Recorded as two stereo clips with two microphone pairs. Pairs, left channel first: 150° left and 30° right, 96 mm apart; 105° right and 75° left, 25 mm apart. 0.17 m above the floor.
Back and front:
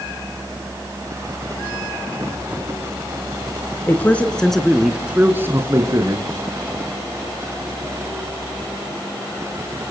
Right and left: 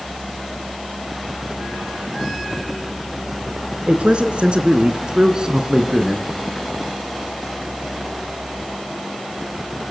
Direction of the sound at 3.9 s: 85° left.